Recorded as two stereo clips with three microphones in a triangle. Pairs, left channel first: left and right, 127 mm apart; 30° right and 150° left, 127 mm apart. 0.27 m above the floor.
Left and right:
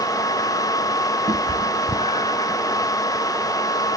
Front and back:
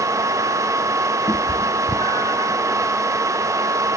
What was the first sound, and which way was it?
A cat meowing, 80° right.